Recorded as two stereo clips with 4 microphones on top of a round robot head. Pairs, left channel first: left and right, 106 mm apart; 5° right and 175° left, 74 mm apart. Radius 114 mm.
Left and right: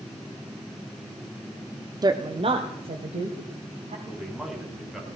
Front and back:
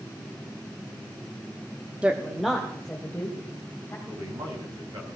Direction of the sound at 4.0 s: 175° right.